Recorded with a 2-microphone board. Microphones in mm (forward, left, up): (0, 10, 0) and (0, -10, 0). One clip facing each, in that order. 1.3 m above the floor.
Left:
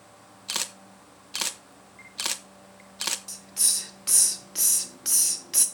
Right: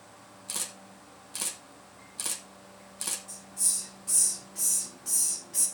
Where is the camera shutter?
40° left (ahead or behind), 1.1 m.